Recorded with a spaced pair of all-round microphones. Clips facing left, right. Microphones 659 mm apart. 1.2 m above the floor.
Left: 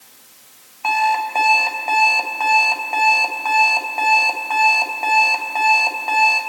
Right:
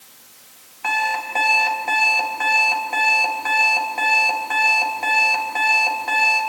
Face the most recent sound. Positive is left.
turn(degrees=-45)  # may be behind; listen again after turning